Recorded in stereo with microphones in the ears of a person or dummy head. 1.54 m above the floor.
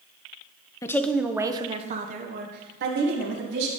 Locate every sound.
0.8 s a woman speaking: 15° left (ahead or behind), 0.8 m; by 3.7 s 70° right (ahead or behind), 2.0 m